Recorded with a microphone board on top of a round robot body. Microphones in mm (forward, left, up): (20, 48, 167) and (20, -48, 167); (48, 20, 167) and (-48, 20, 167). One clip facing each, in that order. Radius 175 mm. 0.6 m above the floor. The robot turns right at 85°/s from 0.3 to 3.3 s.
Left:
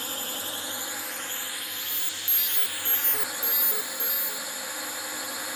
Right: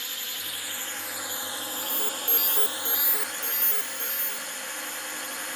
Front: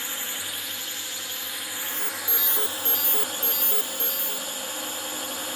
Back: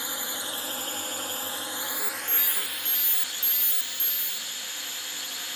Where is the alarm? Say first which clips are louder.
Right 7 dB, even; 120° right; by 4.5 s 10° left.